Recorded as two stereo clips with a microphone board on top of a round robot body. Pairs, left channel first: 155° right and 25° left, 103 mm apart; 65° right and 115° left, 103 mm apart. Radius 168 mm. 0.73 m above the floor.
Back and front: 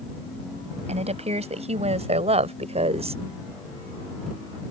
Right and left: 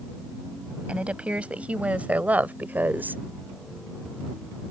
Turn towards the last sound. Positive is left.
turn(degrees=40)